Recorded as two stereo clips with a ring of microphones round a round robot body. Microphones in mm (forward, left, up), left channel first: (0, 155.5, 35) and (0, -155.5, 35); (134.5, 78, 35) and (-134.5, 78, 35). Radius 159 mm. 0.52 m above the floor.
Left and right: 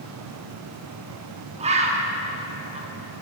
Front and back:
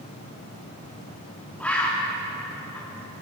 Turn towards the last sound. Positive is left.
turn(degrees=-75)